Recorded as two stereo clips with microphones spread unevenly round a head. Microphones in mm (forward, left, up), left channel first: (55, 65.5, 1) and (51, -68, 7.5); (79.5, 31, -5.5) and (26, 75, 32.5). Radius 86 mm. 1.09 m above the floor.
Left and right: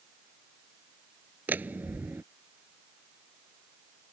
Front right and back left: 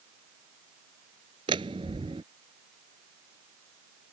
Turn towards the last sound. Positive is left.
turn(degrees=-170)